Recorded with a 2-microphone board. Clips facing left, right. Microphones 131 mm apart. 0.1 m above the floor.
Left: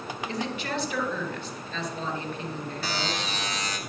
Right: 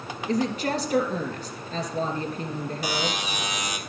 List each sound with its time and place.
0.3 s a woman speaking: 40° right (ahead or behind), 2 m
2.8 s a buzzer: 15° right (ahead or behind), 1.1 m